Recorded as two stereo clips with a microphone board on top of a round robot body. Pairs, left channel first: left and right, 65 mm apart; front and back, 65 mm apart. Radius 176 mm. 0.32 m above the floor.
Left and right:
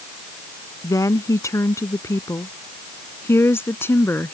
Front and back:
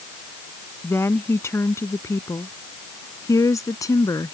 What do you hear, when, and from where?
0.8 s a woman speaking: 55° left; by 4.3 s 35° left